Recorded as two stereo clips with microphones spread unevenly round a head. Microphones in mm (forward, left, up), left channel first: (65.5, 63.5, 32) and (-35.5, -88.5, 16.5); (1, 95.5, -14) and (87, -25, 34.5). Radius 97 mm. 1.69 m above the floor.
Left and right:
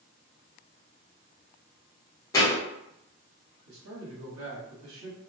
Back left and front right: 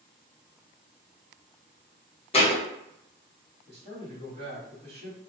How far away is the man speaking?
About 1.3 m.